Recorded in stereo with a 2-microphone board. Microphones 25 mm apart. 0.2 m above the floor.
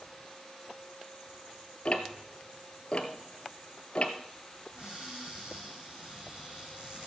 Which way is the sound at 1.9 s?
40° left (ahead or behind).